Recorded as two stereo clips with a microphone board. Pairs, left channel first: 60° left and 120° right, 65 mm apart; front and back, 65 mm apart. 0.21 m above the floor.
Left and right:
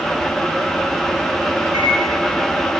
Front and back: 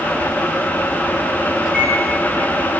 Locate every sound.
1.6 s a microwave: 90° right, 4 m